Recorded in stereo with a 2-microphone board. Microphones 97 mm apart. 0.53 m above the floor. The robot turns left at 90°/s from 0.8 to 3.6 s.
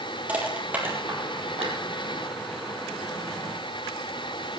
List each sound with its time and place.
0.3 s crushing: 15° right (ahead or behind), 3.5 m; by 1.8 s 75° right (ahead or behind), 3.5 m